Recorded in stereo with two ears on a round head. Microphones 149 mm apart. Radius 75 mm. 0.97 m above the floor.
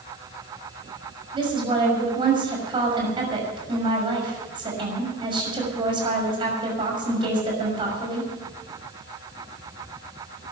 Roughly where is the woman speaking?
Right.